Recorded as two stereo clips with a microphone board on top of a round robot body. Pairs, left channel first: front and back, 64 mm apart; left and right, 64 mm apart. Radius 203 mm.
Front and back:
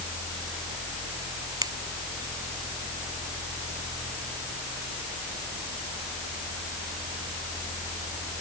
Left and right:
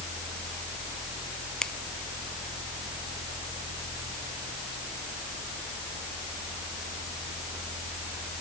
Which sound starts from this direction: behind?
A finger snap, at 1.6 s.